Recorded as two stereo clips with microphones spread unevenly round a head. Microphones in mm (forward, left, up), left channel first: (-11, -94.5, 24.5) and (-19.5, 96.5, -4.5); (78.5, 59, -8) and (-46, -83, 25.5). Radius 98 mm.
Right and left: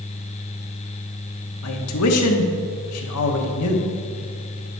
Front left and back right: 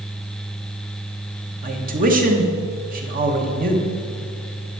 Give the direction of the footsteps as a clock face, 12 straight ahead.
I don't hear footsteps.